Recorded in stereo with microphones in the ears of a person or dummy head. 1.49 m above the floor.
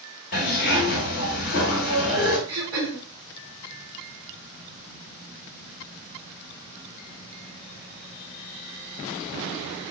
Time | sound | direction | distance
0.3 | a zipper | 50° left (ahead or behind) | 1.5 m
2.5 | throat clearing | 25° right (ahead or behind) | 1.9 m